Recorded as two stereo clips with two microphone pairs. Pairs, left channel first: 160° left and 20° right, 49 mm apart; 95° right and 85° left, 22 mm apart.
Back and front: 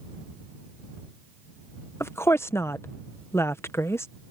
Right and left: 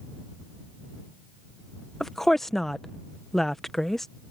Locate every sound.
2.0 s a woman speaking: 175° right